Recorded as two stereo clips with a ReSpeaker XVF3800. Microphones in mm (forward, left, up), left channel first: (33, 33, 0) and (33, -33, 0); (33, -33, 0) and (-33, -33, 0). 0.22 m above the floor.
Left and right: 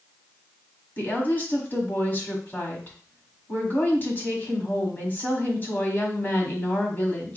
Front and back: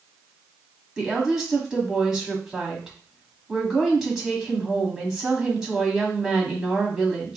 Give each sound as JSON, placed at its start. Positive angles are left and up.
{"t": 1.0, "sound": "a woman speaking", "azimuth_deg": 105, "distance_m": 1.5}